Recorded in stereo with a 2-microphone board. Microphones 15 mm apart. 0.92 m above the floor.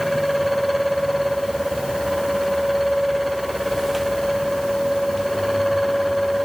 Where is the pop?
I don't hear a pop.